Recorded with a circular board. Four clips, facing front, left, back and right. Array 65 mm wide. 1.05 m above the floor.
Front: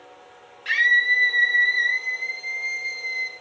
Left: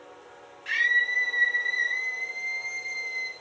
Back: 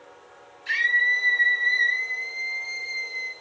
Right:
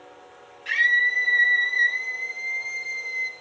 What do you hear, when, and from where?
0.7 s a scream: 5° right, 3.5 m